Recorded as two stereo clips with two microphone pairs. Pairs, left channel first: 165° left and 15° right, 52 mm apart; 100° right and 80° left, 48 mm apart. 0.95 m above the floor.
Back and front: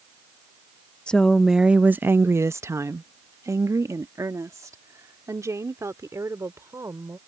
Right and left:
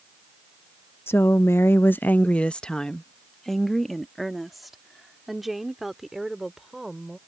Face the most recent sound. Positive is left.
turn(degrees=0)